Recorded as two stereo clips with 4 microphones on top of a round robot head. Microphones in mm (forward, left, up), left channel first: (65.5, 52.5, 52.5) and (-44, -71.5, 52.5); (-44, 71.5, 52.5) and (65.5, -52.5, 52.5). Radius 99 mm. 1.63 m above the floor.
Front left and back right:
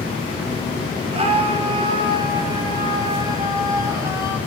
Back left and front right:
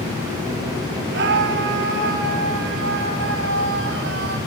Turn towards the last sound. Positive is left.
turn(degrees=-55)